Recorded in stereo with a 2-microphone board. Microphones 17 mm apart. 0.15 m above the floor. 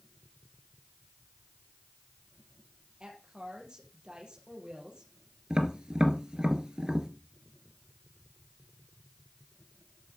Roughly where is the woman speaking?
Right.